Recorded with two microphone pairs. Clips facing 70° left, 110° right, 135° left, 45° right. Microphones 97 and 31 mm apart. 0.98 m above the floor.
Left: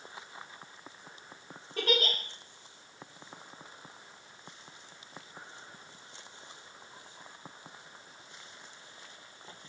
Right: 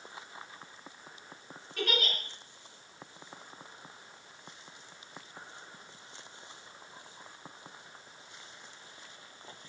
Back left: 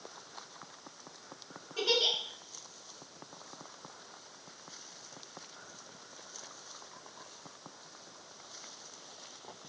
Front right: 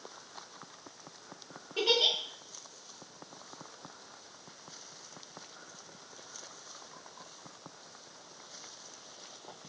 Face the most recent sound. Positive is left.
turn(degrees=15)